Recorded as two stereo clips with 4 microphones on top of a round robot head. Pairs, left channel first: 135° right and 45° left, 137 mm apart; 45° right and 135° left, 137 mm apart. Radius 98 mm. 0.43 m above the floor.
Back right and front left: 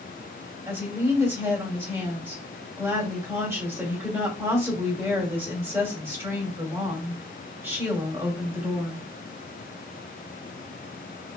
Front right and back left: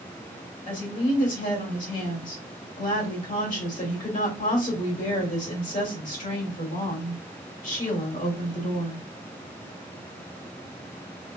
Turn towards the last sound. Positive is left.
turn(degrees=-25)